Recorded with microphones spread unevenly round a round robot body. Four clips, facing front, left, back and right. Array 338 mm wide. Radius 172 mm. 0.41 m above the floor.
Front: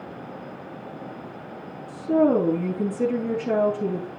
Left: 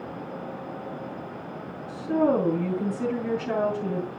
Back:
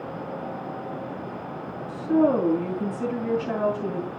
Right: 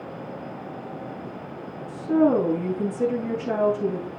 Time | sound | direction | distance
1.9 | a woman speaking | straight ahead | 9.5 m